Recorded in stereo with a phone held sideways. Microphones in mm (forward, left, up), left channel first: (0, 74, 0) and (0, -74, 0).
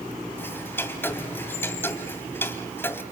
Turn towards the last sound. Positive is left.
turn(degrees=15)  # may be behind; listen again after turning